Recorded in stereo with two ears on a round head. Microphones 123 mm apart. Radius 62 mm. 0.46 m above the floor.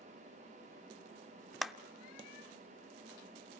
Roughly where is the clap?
Centre.